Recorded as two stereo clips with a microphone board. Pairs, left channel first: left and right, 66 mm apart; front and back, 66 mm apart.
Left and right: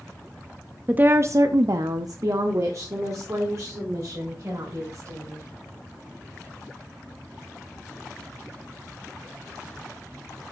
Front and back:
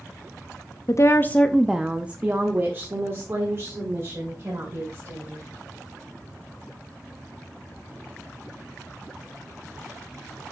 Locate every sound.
0.9 s a woman speaking: 25° right, 0.6 m; by 5.4 s 135° right, 3.5 m